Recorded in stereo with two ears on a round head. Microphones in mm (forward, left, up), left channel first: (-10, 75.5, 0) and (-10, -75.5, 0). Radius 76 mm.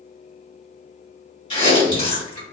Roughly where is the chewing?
Left.